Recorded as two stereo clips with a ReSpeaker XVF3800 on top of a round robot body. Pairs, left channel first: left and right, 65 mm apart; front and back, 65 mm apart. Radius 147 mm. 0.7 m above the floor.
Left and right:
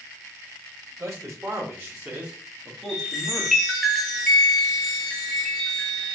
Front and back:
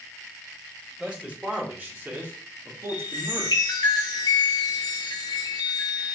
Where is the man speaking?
105° right, 1.2 m; by 3.6 s 155° left, 1.3 m.